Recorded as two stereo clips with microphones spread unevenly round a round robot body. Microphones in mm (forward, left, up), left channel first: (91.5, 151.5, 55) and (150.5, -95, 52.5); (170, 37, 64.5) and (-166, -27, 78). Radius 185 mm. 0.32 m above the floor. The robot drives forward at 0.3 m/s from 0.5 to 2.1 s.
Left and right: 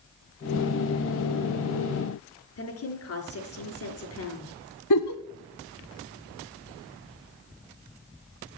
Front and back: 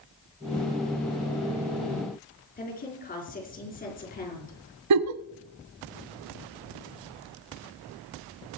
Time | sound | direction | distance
2.6 | a woman speaking | 75° left | 4.5 m
4.9 | a giggle | 145° left | 0.6 m